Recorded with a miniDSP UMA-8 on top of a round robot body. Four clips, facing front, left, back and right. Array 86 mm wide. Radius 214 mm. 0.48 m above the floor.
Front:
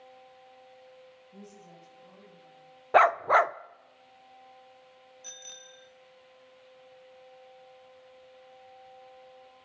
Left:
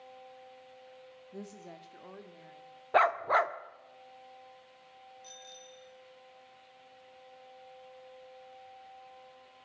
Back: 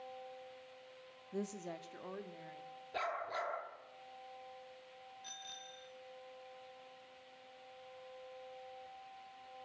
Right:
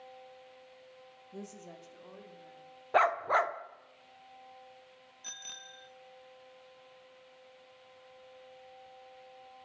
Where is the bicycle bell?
75° right, 2 m.